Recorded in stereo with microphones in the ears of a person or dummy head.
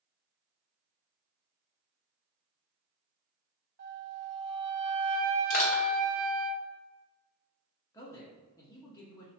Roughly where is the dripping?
No dripping in this recording.